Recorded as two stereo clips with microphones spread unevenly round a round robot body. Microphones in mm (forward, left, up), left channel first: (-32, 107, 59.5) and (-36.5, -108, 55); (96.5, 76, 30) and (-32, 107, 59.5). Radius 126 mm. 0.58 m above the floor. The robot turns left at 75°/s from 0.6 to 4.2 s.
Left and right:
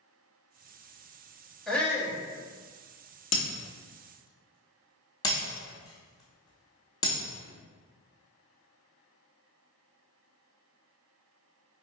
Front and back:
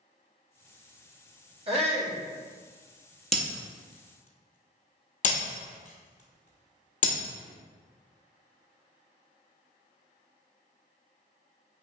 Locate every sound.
1.7 s a shout: straight behind, 1.4 m; by 2.2 s 140° left, 1.4 m
3.3 s breaking glass: 80° left, 1.3 m; by 7.2 s 15° left, 1.3 m